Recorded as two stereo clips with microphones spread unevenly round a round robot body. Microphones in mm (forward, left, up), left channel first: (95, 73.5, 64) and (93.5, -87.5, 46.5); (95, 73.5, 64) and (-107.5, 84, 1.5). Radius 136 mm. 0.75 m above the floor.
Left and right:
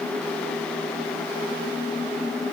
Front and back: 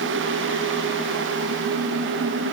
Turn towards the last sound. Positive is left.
No sound to turn to.